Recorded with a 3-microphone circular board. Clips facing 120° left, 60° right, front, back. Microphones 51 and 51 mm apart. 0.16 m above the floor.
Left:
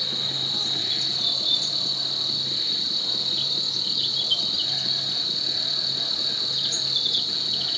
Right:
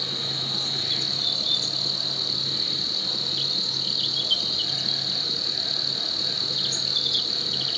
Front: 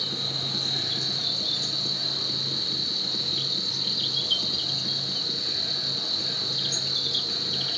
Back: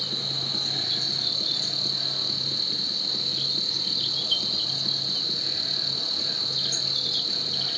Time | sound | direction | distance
0.0 | an insect | 15° right | 1.5 m